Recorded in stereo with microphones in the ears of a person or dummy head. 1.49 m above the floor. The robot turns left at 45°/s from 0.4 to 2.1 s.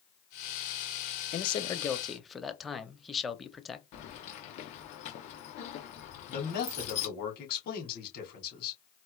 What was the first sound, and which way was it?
A man speaking, 35° left.